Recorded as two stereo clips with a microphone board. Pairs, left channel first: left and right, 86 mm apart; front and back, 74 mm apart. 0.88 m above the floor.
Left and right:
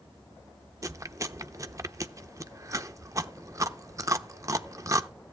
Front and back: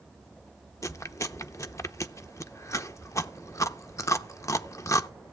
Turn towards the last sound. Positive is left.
turn(degrees=-45)